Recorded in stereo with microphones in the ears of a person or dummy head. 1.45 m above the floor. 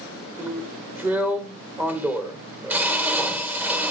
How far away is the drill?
About 1.1 m.